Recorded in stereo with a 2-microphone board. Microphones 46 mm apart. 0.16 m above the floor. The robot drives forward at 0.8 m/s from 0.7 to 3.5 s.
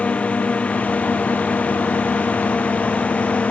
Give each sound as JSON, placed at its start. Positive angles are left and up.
{"t": 0.0, "sound": "a drone", "side_deg": 25}